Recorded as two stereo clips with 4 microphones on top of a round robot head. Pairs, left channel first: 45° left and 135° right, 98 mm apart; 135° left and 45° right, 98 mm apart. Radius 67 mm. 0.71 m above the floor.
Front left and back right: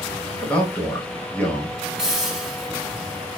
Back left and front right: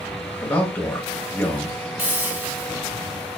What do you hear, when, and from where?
0.4 s a man speaking: 100° left, 0.9 m
2.0 s a hiss: 60° right, 1.2 m